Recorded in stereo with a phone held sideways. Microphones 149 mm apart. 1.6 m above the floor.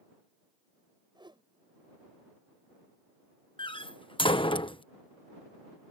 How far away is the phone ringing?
I don't hear a phone ringing.